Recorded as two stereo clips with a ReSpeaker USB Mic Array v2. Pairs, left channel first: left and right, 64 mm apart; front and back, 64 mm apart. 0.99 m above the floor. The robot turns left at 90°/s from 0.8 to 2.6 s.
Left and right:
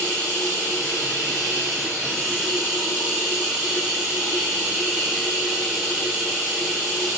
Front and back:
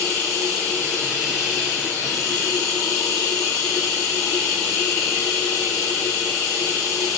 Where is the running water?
145° left, 2.5 m; by 7.2 s 15° right, 2.5 m.